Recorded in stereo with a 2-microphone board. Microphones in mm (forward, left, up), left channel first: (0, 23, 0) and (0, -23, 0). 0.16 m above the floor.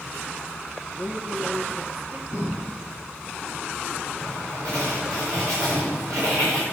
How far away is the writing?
About 7.5 m.